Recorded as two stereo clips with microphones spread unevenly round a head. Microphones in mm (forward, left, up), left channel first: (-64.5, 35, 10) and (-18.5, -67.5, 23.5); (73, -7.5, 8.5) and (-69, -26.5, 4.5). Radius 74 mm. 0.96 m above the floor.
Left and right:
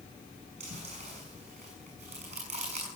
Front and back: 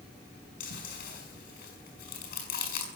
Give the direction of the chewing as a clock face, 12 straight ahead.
1 o'clock.